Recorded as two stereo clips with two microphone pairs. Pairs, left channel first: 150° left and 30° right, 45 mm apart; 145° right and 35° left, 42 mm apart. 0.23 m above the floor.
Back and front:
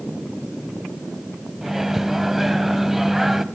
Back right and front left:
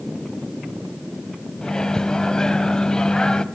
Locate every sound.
1.6 s a microwave: 105° right, 1.0 m